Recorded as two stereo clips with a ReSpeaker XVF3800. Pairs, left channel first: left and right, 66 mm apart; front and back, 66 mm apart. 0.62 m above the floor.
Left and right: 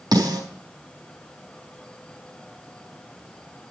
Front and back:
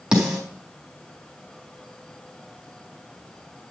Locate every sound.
0.1 s a snare drum: 100° right, 3.5 m